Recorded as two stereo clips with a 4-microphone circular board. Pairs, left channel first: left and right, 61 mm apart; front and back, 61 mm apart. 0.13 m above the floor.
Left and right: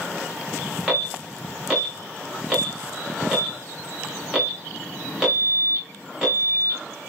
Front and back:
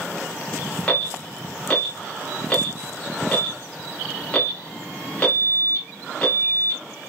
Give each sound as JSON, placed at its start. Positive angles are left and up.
{"t": 0.9, "sound": "an alarm", "azimuth_deg": -30, "distance_m": 1.9}